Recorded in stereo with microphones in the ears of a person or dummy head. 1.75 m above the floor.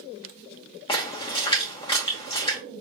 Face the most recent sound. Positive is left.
turn(degrees=25)  # may be behind; listen again after turning